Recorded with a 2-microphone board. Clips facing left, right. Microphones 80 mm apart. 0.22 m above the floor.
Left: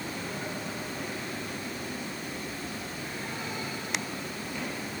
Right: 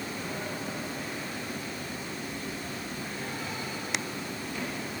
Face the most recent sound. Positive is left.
No sound to turn to.